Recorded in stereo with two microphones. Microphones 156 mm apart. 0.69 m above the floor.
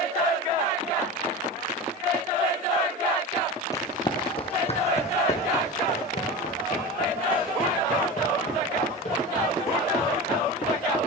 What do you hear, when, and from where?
3.7 s running footsteps: 20° left (ahead or behind), 1.0 m; by 11.0 s 60° left (ahead or behind), 7.5 m